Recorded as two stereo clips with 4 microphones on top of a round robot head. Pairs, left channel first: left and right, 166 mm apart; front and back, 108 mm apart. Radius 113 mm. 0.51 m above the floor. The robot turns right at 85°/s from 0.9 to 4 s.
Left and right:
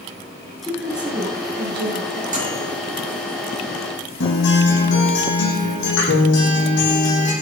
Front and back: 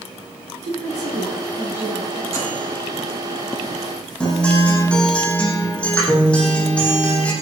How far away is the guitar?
About 7.5 m.